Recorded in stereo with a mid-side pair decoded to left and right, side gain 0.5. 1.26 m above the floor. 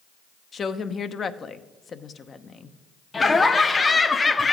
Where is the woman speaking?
40° left, 0.9 m.